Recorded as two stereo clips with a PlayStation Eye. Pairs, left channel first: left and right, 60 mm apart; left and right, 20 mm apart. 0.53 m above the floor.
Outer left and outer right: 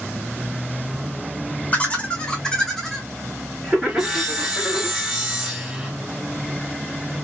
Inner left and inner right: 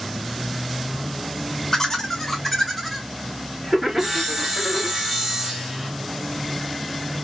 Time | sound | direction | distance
1.7 | laughter | 25° left (ahead or behind) | 1.0 m
3.9 | sawing | 10° right (ahead or behind) | 1.4 m